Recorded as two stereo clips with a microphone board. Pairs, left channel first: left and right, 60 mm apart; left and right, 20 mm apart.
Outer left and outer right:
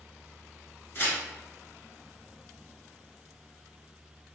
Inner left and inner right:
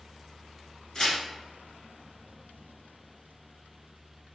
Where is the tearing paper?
40° left (ahead or behind), 1.4 m.